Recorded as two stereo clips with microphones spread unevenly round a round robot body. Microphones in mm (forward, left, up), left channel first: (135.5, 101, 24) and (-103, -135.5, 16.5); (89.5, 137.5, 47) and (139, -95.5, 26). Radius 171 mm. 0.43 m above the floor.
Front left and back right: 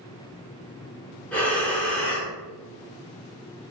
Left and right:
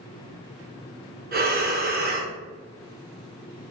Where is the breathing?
40° right, 1.0 m.